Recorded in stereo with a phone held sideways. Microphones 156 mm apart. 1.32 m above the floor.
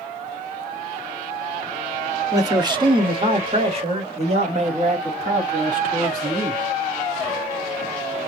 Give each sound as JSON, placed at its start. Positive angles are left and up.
{"t": 2.3, "sound": "a man speaking", "side_deg": -25, "distance_m": 1.5}